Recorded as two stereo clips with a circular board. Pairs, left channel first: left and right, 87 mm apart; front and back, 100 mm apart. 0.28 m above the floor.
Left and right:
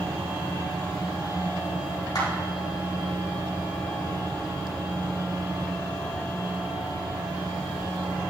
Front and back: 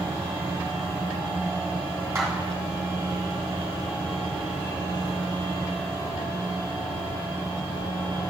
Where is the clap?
120° left, 2.5 m.